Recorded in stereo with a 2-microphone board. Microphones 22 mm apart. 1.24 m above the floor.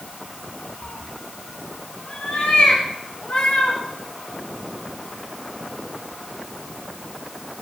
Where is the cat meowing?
60° left (ahead or behind), 0.9 m; by 3.8 s 85° left, 5 m.